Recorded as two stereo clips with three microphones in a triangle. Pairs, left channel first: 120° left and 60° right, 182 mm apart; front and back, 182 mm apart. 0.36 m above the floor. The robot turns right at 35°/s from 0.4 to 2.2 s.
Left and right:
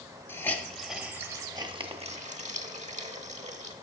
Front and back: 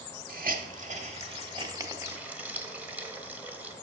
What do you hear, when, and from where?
0.3 s a hiss: 165° right, 1.0 m; by 3.7 s 100° right, 1.0 m